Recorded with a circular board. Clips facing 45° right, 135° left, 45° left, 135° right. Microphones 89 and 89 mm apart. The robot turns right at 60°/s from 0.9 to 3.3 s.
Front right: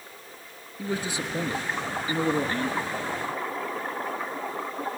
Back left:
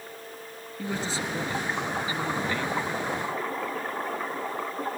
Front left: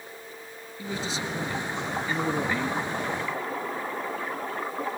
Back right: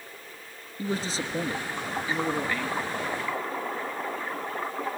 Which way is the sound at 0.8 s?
125° right.